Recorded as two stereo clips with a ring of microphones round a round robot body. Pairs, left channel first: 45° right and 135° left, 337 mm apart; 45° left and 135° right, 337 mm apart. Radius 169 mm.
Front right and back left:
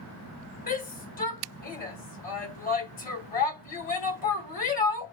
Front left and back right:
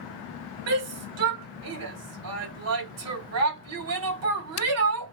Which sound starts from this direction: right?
A shout, at 0.7 s.